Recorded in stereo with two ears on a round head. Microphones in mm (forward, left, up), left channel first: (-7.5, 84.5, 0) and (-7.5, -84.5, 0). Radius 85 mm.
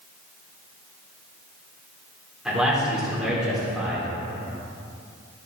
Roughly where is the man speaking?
Centre.